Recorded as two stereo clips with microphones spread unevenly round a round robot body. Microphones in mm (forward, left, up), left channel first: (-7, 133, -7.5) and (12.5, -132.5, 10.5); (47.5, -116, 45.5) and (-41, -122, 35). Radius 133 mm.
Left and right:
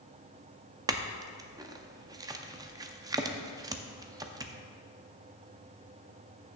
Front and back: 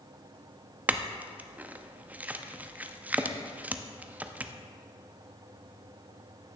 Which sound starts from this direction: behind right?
A clink, at 0.9 s.